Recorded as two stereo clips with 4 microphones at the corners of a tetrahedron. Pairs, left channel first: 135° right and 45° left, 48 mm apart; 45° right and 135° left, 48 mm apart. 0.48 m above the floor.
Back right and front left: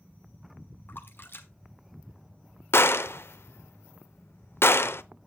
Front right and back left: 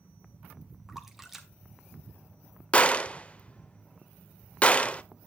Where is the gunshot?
110° right, 0.5 m.